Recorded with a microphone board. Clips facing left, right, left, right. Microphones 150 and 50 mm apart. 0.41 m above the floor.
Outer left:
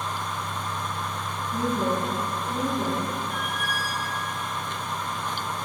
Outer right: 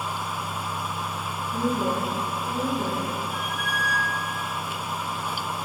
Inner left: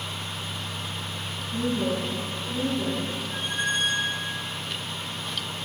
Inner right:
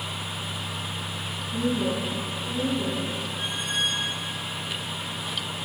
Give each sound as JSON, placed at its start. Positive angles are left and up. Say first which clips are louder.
{"t": 1.5, "sound": "a woman speaking", "louder": "even, even", "side_deg": 15, "distance_m": 5.5}
{"t": 3.3, "sound": "a squeak", "louder": "even, inner left 2 dB", "side_deg": 50, "distance_m": 2.5}